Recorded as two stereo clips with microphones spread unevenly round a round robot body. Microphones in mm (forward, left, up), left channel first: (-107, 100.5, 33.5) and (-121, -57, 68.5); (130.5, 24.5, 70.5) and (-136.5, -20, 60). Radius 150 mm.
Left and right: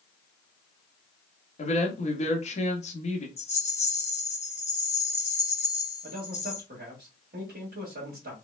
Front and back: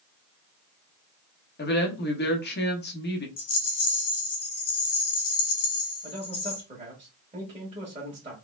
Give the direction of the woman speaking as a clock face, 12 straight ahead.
10 o'clock.